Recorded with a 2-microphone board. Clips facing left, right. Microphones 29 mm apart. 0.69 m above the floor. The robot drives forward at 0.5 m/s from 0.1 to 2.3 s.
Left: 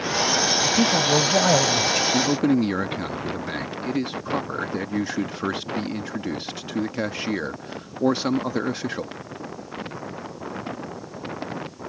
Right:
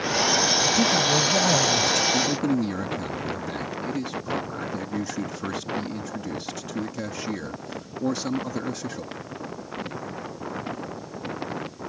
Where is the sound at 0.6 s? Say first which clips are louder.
Left 1 dB; 25° left (ahead or behind); by 2.0 s 30° left (ahead or behind).